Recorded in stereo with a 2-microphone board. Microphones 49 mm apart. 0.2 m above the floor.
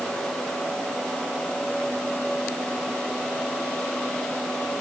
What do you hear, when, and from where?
Only background noise.